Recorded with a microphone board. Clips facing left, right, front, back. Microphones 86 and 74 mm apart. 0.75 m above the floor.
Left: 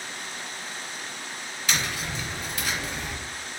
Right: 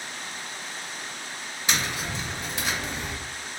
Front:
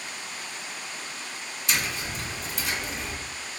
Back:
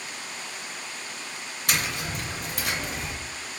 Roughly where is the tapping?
Behind.